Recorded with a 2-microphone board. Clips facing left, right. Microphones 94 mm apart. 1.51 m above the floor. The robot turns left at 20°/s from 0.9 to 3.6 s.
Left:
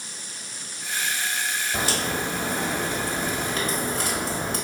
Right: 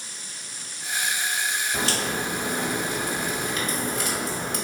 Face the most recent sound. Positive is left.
turn(degrees=130)